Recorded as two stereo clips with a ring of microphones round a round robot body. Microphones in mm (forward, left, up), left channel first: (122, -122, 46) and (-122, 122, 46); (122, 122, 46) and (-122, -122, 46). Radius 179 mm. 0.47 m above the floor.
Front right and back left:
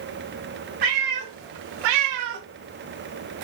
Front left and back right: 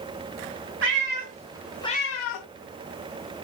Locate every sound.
0.8 s a cat meowing: 165° left, 1.1 m; by 2.5 s 65° left, 0.6 m